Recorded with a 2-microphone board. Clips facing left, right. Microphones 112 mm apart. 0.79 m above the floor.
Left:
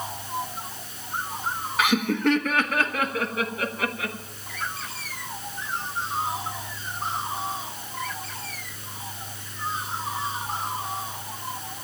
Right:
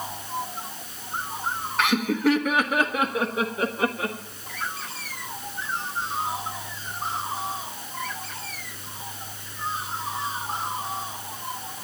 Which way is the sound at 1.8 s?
5° left (ahead or behind).